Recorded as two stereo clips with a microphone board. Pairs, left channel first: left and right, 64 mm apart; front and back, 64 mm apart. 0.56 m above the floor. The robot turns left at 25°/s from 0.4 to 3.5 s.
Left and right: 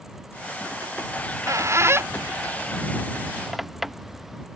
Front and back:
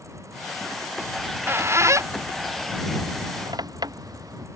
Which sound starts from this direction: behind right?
A squeak, at 1.2 s.